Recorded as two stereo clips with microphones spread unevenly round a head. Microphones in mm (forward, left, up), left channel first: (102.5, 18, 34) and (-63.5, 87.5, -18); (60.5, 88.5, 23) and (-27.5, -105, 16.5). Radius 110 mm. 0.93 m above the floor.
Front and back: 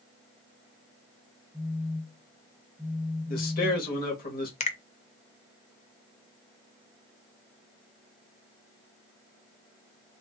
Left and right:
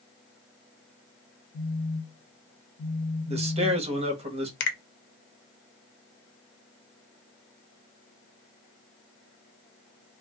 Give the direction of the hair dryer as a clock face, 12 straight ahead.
No hair dryer in this recording.